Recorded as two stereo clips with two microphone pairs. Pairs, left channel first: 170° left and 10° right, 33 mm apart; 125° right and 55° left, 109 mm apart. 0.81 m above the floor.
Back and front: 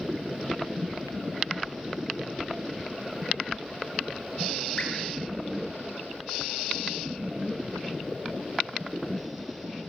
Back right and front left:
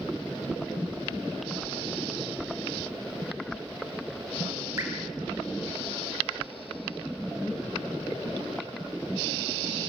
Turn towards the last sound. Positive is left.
turn(degrees=115)